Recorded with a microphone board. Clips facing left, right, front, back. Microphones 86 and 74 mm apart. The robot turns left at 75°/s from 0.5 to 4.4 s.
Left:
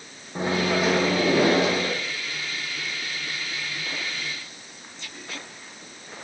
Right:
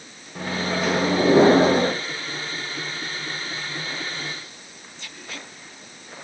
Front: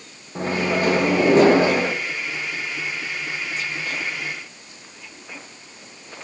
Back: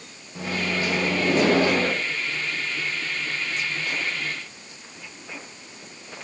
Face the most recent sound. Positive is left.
turn(degrees=95)